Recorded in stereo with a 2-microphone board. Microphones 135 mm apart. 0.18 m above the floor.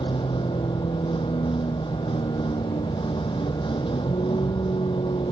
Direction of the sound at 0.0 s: 40° left (ahead or behind).